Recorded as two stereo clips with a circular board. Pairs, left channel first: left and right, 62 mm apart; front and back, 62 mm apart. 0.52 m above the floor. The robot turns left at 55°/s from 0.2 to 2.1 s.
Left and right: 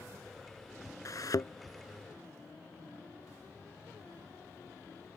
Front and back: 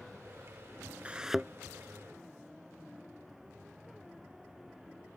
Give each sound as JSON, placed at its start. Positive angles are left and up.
{"t": 1.1, "sound": "a thud", "azimuth_deg": 110}